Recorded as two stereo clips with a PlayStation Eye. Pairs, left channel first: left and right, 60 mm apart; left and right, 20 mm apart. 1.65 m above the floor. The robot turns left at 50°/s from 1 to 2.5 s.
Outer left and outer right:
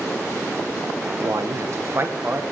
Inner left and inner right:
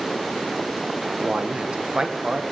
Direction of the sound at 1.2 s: 95° right.